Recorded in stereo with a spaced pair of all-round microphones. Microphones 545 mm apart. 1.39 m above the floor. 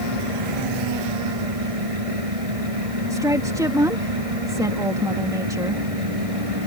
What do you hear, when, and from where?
0.0 s a fan: 90° right
3.1 s a woman speaking: 5° right (ahead or behind)